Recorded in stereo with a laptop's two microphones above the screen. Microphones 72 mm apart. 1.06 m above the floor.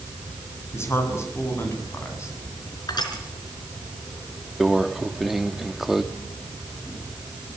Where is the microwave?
Centre (ahead or behind), 1.6 m.